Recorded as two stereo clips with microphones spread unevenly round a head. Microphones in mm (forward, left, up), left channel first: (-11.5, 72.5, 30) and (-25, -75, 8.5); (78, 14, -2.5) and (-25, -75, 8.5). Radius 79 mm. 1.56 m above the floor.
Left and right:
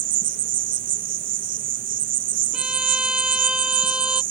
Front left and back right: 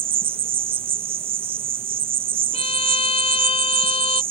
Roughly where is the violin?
Ahead.